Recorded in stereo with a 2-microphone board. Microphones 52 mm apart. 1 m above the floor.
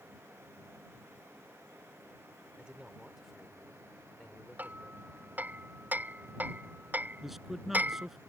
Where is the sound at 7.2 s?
5° right (ahead or behind).